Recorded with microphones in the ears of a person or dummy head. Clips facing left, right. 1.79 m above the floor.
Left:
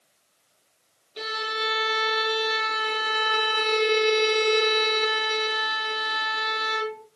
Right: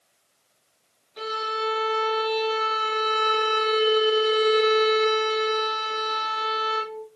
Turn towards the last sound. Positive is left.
turn(degrees=30)  # may be behind; listen again after turning